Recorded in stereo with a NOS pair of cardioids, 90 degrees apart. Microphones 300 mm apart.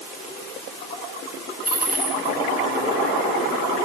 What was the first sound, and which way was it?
A dropped coin, 30° right.